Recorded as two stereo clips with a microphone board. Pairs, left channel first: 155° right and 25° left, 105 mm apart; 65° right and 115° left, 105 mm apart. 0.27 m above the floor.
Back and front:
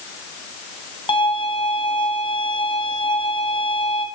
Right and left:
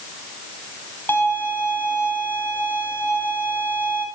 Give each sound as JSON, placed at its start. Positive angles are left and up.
{"t": 1.1, "sound": "a violin", "azimuth_deg": -135, "distance_m": 3.0}